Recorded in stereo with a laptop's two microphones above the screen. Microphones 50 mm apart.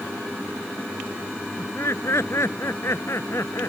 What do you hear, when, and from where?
1.6 s laughter: 70° left (ahead or behind); by 3.7 s 65° left (ahead or behind)